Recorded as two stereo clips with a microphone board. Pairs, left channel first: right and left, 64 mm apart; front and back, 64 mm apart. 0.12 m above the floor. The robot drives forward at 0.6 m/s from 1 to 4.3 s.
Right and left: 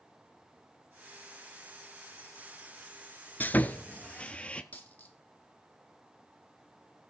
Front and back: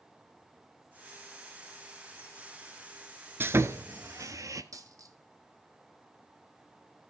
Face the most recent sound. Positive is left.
turn(degrees=-155)